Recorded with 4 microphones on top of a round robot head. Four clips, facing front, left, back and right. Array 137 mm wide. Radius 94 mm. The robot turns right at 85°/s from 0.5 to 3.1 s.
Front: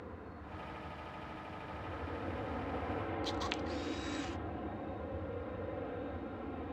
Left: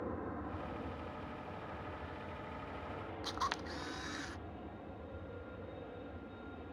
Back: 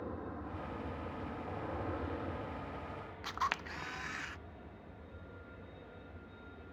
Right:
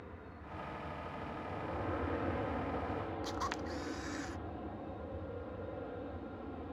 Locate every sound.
0.0 s an aircraft: 120° left; by 6.7 s 20° right
3.2 s a camera shutter: 165° left